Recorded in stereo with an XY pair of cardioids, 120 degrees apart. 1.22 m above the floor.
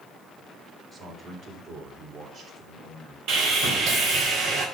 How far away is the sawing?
About 4 m.